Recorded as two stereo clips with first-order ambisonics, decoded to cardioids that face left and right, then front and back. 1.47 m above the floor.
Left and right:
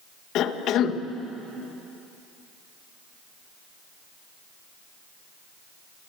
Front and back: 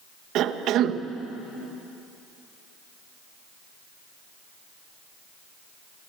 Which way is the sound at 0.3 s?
135° left.